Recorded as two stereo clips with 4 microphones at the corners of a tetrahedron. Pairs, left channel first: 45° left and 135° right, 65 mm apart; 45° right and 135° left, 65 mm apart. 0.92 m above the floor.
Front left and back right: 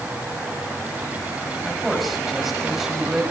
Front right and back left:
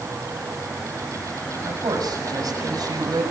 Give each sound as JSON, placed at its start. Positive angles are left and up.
{"t": 1.6, "sound": "a man speaking", "azimuth_deg": 135, "distance_m": 7.0}